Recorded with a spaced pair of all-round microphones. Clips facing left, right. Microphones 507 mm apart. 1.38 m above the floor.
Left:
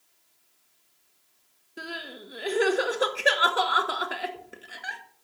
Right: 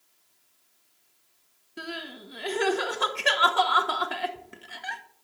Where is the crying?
20° right (ahead or behind), 1.1 m.